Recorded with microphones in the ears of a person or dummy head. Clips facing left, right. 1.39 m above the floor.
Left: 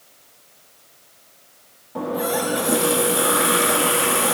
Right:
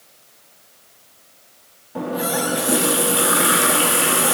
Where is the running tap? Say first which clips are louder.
Even; 5° right (ahead or behind), 1.5 m.